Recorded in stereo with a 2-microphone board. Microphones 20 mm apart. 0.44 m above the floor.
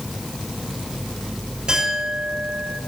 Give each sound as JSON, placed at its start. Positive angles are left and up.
{"t": 1.7, "sound": "a clink", "side_deg": -35, "distance_m": 6.0}